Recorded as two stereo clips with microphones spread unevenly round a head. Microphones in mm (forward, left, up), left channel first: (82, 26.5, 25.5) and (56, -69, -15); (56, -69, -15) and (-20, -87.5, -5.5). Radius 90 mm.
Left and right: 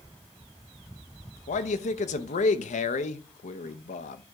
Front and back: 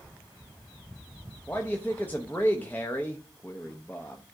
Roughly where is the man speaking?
Left.